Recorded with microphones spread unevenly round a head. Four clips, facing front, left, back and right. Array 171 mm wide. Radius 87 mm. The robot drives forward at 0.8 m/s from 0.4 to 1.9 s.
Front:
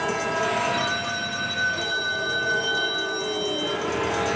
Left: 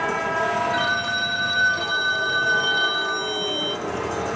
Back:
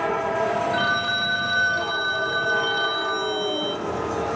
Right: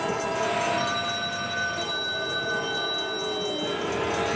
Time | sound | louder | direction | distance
0.7 | a phone ringing | left 4 dB, back 3 dB | 110° left | 2 m